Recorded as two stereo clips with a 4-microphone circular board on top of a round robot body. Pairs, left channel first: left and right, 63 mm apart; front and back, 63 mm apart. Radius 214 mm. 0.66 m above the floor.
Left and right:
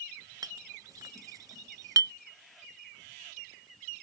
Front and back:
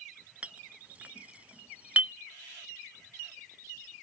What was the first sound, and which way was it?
A clink, 110° right.